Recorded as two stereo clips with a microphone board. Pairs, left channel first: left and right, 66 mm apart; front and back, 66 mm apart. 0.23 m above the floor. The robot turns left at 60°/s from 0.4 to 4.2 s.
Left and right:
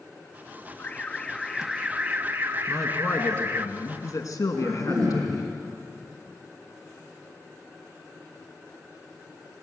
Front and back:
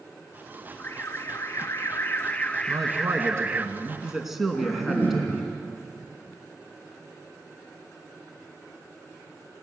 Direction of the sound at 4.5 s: 125° right.